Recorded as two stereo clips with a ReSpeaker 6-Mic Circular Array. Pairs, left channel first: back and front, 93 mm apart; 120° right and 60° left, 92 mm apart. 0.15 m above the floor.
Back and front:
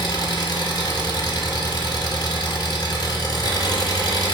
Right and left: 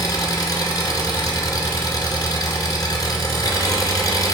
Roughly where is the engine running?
Behind right.